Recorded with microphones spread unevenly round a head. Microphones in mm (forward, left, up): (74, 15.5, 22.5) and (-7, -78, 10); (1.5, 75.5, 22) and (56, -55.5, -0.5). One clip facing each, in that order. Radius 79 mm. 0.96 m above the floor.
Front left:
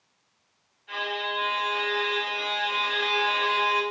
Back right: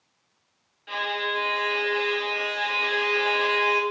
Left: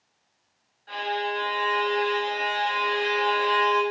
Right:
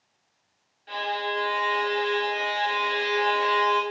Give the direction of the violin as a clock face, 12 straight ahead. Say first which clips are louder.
Back right 2 dB, left 1 dB; 5 o'clock.